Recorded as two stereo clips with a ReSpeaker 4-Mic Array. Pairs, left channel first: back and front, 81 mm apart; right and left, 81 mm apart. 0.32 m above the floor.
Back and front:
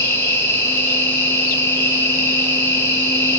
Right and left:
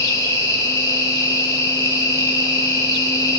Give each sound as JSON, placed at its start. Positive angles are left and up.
{"t": 0.0, "sound": "an insect", "azimuth_deg": -125, "distance_m": 1.3}